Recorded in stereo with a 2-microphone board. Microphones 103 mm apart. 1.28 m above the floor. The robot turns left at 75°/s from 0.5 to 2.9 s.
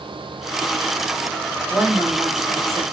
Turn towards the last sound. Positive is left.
turn(degrees=-90)